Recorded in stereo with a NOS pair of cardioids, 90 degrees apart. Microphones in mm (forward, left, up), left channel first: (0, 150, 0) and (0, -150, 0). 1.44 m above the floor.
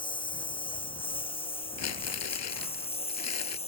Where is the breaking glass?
I don't hear breaking glass.